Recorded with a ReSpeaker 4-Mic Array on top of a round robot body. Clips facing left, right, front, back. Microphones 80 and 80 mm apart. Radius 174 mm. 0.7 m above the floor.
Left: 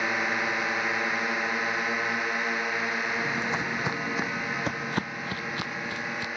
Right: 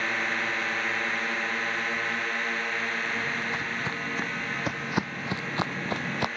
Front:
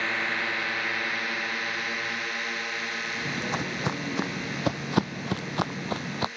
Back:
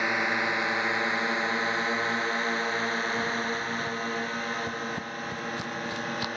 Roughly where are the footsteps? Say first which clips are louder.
Left 2 dB, back 1 dB; ahead left.